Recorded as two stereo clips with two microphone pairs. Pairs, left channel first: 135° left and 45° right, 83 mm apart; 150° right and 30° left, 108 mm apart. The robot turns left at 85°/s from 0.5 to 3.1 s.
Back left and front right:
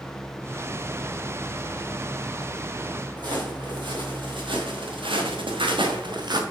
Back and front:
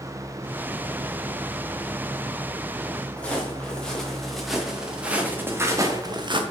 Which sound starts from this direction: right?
Footsteps, at 3.2 s.